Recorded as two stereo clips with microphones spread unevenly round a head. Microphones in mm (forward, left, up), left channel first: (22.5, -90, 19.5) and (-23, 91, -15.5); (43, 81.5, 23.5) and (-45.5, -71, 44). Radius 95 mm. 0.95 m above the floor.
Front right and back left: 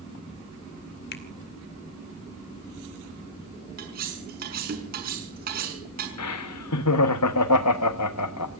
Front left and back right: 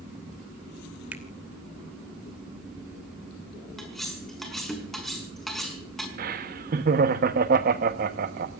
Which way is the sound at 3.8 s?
150° left.